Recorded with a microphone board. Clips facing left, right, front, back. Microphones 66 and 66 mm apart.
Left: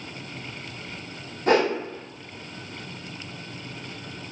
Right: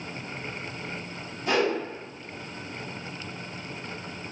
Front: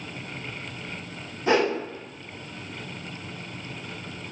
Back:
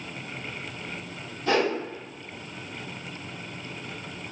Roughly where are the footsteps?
No footsteps in this recording.